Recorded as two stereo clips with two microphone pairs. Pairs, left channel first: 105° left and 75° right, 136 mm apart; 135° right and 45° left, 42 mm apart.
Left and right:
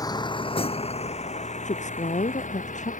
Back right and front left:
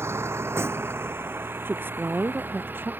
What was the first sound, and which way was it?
A vehicle, 45° left.